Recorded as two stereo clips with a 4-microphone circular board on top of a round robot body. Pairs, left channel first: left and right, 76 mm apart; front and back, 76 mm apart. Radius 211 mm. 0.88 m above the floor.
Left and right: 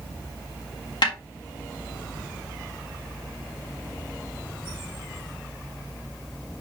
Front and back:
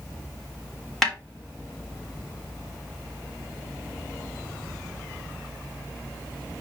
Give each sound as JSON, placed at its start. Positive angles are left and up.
{"t": 1.0, "sound": "a snare drum", "azimuth_deg": 85, "distance_m": 3.5}